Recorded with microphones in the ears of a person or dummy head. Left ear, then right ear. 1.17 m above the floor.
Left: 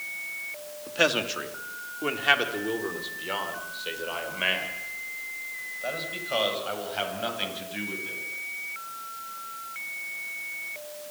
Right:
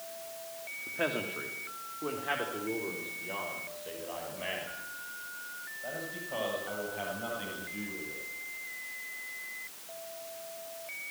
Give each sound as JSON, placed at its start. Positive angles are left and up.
{"t": 0.9, "sound": "a man speaking", "side_deg": 80, "distance_m": 2.5}